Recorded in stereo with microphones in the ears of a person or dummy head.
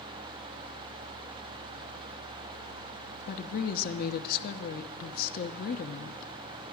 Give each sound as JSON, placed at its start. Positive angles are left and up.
{"t": 3.3, "sound": "a woman speaking", "side_deg": 45, "distance_m": 0.7}